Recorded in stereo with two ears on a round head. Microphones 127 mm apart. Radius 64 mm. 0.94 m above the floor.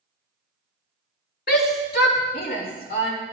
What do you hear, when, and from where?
1.5 s a shout: 70° left (ahead or behind), 3 m; by 3.1 s 65° left (ahead or behind), 3.5 m